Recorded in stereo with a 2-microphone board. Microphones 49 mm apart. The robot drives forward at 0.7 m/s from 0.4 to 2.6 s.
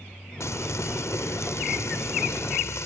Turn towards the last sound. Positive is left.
turn(degrees=75)  # may be behind; listen again after turning